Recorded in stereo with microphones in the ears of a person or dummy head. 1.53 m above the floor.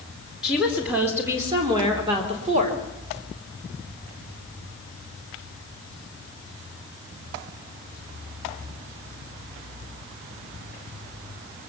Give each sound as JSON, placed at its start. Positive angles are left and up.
{"t": 0.4, "sound": "a woman speaking", "side_deg": -5, "distance_m": 4.0}